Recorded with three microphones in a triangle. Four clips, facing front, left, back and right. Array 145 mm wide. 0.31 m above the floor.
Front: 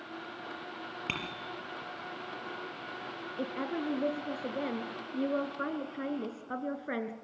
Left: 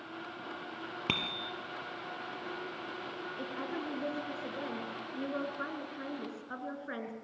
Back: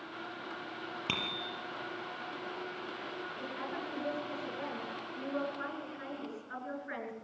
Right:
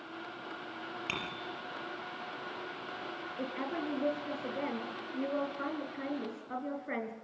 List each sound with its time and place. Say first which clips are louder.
1.1 s a bicycle bell: left 4 dB, back 1 dB; 95° left, 5.5 m
3.4 s a woman speaking: right 3 dB, front 8 dB; 15° right, 3.5 m